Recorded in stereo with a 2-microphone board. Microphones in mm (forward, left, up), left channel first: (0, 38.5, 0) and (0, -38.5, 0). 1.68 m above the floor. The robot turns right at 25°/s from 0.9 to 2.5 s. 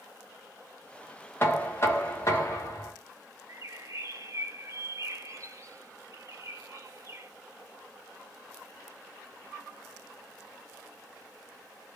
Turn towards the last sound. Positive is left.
turn(degrees=-45)  # may be behind; listen again after turning